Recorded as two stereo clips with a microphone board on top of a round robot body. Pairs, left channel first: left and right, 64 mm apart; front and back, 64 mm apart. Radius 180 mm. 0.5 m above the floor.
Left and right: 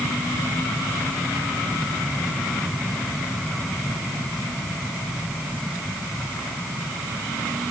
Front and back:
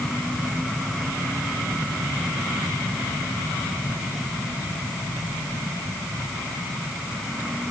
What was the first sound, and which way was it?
Only background noise.